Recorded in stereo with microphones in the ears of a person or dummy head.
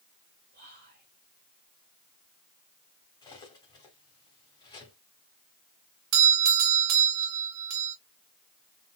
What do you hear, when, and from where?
0.5 s whispering: 45° right (ahead or behind), 1.5 m
3.2 s cutlery clinking: 20° left (ahead or behind), 1.9 m
6.1 s a doorbell: 85° right, 1.1 m